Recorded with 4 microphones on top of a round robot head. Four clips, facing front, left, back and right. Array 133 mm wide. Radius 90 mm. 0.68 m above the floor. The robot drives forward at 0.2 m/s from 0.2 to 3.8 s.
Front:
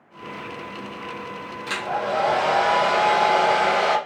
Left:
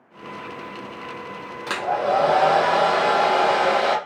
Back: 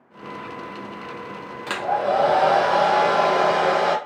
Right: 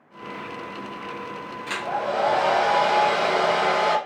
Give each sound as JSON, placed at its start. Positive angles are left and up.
{"t": 1.7, "sound": "a hair dryer", "azimuth_deg": 130, "distance_m": 0.5}